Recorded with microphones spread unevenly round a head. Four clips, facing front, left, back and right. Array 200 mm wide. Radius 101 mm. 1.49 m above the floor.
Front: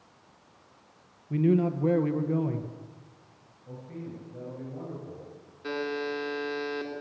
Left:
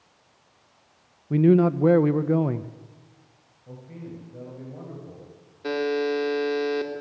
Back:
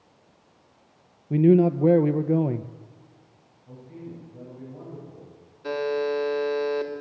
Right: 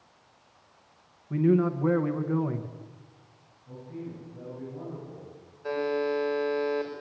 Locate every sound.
1.3 s a man speaking: 140° left, 0.8 m
3.7 s a man speaking: 50° left, 9 m
5.6 s a buzzer: 100° left, 4 m